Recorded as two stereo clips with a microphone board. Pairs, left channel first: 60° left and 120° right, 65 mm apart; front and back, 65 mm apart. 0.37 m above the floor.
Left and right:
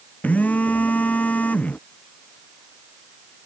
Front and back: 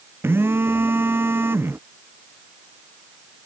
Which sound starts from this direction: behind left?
A phone buzzing, at 0.2 s.